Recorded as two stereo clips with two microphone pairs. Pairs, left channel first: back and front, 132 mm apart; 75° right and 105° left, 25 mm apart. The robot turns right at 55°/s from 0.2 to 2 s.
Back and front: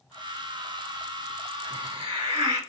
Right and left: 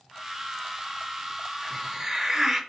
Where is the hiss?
25° left, 3 m; by 2.6 s 45° left, 3 m.